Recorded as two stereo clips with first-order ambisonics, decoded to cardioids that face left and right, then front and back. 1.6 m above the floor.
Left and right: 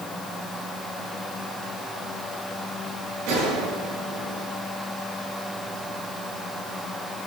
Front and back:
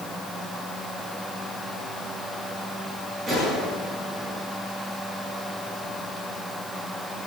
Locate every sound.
3.3 s a gunshot: 110° right, 7 m